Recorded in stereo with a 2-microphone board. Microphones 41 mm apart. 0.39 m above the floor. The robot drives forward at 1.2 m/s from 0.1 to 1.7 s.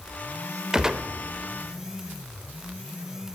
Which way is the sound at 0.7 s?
20° right (ahead or behind).